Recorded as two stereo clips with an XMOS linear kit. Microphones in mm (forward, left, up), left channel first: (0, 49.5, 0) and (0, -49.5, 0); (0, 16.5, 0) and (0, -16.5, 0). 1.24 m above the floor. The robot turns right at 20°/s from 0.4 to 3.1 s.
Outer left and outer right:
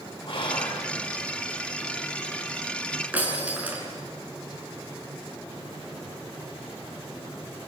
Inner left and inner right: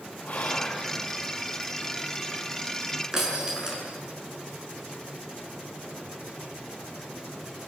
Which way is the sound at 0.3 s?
55° left (ahead or behind).